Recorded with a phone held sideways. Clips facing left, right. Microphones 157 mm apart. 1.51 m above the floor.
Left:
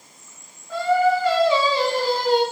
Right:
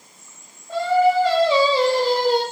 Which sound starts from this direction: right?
Singing, at 0.7 s.